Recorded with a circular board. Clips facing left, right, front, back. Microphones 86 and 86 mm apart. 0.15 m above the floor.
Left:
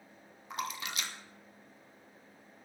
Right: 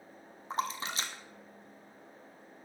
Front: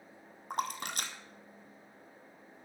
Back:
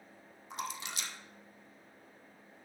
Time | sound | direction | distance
0.5 | a splash | 35° right | 1.2 m